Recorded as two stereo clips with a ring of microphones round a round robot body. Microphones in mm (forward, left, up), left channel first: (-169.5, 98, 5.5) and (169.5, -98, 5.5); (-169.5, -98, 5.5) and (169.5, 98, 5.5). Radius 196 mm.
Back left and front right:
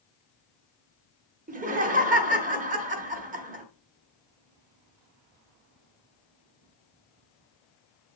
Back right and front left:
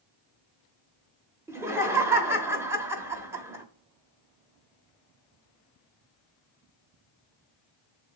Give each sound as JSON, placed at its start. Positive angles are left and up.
{"t": 1.5, "sound": "laughter", "azimuth_deg": -40, "distance_m": 0.8}